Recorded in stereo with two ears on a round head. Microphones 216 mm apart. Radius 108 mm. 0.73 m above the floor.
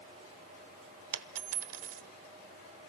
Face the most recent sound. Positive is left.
turn(degrees=-65)  # may be behind; listen again after turning